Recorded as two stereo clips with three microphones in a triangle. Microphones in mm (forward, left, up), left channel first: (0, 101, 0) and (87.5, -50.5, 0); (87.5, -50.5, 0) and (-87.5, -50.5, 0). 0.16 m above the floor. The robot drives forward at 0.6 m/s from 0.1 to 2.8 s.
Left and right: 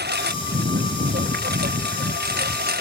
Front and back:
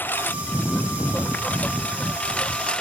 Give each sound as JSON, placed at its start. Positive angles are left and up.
{"t": 0.0, "sound": "a lawn mower", "azimuth_deg": -80}